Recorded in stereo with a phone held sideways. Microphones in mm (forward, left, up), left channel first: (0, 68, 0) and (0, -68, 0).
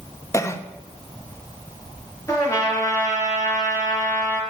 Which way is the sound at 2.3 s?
25° left (ahead or behind).